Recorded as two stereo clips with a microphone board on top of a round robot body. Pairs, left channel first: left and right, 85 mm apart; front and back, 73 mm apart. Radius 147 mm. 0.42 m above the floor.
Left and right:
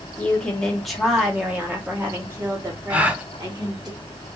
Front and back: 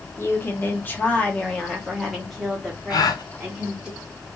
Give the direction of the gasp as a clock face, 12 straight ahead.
1 o'clock.